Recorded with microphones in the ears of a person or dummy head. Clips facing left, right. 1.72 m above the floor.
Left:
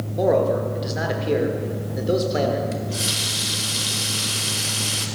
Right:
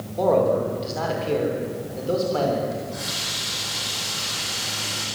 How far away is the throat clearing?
I don't hear throat clearing.